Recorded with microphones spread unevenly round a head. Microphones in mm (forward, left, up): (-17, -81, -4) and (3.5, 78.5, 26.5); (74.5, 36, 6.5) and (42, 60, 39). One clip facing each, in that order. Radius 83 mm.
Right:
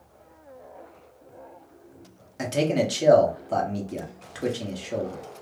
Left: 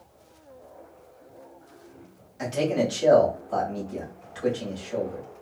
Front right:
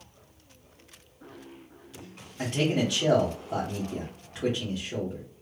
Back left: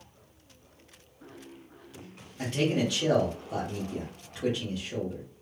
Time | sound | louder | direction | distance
2.4 | a man speaking | right 1 dB, front right 1 dB | 115° right | 1.3 m